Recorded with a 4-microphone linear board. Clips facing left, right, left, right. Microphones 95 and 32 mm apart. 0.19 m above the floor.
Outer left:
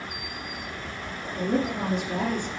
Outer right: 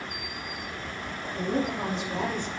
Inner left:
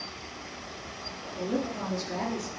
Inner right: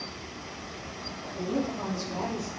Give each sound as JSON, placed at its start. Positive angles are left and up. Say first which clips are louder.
{"t": 1.4, "sound": "a woman speaking", "louder": "outer left 2 dB, inner right 1 dB", "side_deg": 55, "distance_m": 3.5}